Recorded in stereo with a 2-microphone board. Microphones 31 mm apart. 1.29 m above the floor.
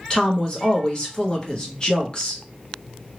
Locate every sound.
0.1 s a woman speaking: 25° left (ahead or behind), 1.1 m